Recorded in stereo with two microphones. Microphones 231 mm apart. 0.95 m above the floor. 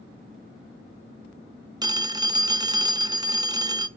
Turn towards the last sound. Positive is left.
turn(degrees=-20)  # may be behind; listen again after turning